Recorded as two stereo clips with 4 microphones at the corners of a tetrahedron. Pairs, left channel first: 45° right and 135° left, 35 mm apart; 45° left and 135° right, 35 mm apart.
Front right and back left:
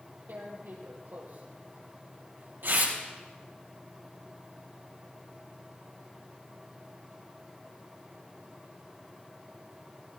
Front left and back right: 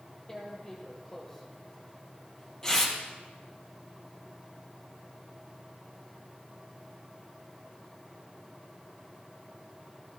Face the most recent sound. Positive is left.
turn(degrees=120)